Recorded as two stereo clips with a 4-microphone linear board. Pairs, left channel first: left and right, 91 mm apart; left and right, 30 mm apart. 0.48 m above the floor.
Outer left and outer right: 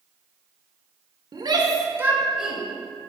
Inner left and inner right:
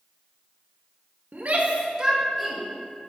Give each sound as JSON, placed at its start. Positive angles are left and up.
{"t": 1.3, "sound": "a shout", "side_deg": -55, "distance_m": 1.2}